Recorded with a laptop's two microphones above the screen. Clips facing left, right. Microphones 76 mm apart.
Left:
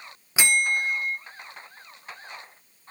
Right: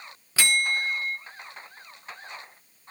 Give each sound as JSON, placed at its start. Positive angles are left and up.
{"t": 0.4, "sound": "a bell", "side_deg": 20, "distance_m": 1.0}